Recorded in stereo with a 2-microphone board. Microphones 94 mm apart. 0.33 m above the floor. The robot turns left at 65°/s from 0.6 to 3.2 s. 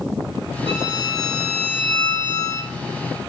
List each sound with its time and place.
0.7 s a violin: 100° right, 3.5 m; by 2.7 s 125° left, 3.5 m